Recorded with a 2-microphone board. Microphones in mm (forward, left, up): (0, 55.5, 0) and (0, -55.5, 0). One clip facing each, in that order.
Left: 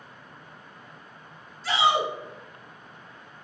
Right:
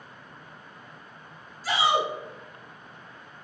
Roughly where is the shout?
Centre.